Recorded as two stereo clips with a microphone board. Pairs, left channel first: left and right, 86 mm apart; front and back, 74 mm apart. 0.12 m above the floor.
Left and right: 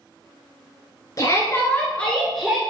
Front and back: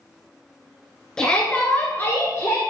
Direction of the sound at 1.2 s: 70° left.